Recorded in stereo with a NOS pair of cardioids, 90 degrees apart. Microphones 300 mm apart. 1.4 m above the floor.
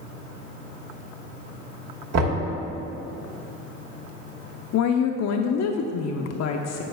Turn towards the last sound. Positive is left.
turn(degrees=60)